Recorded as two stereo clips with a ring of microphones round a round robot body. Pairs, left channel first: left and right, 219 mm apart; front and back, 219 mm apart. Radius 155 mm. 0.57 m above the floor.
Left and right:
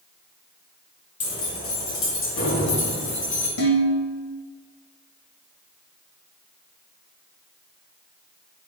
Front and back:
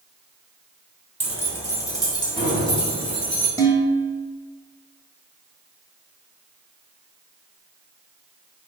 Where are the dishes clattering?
75° left, 1.8 m.